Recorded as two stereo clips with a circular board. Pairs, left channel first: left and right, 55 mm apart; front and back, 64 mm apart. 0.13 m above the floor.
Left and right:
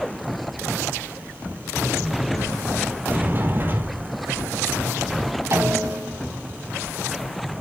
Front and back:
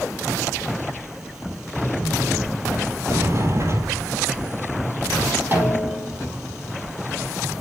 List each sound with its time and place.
3.1 s a sliding door: 140° right, 1.8 m
5.5 s a snare drum: 120° right, 4.5 m